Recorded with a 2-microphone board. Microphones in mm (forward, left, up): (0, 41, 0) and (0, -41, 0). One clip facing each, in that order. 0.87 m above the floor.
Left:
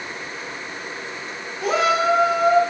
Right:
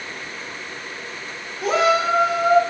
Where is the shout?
Centre (ahead or behind), 3.5 m.